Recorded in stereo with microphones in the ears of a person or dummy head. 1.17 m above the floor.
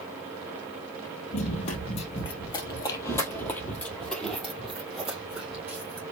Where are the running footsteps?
40° left (ahead or behind), 1.9 m; by 6.0 s 10° right (ahead or behind), 3 m.